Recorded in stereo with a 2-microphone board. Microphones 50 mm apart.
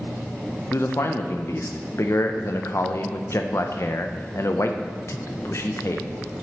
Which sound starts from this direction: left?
A man speaking, at 0.7 s.